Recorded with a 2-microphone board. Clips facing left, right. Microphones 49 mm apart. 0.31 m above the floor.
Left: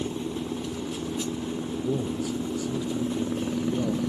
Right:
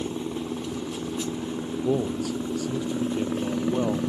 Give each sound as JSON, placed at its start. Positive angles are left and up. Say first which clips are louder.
{"t": 0.0, "sound": "a helicopter", "louder": "even", "side_deg": -20}
{"t": 1.8, "sound": "a man speaking", "louder": "right 4 dB", "side_deg": -85}